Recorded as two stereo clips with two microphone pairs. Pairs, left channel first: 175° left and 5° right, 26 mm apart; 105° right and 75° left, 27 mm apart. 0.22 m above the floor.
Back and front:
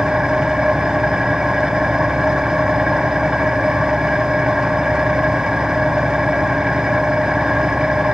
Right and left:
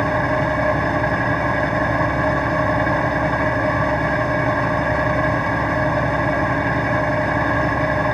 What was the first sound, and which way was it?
An engine running, 25° right.